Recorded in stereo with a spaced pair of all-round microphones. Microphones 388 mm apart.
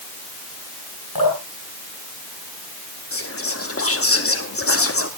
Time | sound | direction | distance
1.1 | dripping | 60° left (ahead or behind) | 6 m
3.1 | whispering | 35° left (ahead or behind) | 0.9 m